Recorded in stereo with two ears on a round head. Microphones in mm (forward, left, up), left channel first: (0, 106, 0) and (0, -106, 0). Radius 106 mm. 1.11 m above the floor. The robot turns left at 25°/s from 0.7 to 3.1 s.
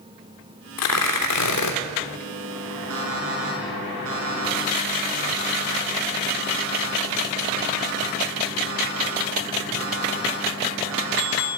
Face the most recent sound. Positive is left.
turn(degrees=-65)  # may be behind; listen again after turning